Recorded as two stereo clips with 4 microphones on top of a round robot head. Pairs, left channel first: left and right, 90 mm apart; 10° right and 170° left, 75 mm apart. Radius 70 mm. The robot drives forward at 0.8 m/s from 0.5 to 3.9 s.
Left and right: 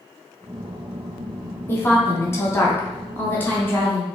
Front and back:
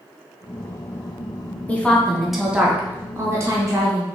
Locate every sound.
1.7 s a woman speaking: 45° left, 1.3 m; by 4.0 s 155° left, 1.7 m